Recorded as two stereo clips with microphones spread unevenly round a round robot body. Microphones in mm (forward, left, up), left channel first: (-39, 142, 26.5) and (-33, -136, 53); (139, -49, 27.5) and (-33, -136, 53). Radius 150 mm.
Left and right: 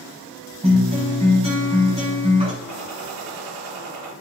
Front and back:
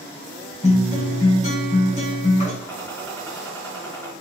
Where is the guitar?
20° right, 4.5 m.